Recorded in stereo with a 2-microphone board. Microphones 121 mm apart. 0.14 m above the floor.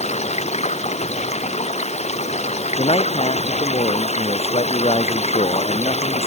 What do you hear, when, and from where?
0.0 s running water: 65° left (ahead or behind)
2.8 s a man speaking: 55° left (ahead or behind)